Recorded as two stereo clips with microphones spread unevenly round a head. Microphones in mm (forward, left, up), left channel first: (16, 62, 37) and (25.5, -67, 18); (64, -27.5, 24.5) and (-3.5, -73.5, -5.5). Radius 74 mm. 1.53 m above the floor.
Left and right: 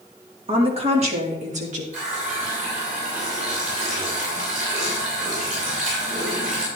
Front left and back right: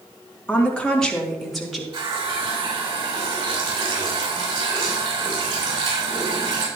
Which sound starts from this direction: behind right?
A running tap, at 1.9 s.